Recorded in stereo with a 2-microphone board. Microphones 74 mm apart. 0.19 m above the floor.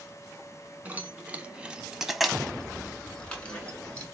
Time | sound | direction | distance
0.8 | keys jangling | 20° right (ahead or behind) | 1.2 m